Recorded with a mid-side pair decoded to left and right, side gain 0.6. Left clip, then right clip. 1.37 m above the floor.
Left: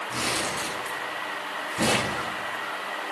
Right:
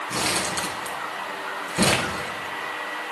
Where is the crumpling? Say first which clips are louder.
Right 3 dB; 35° right, 7 m.